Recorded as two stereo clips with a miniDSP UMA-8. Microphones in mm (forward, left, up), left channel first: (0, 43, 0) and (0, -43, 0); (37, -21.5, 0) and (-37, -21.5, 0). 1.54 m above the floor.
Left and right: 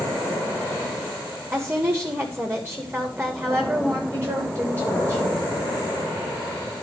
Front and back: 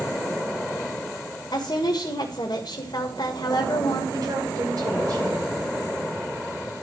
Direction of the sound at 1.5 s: 15° right.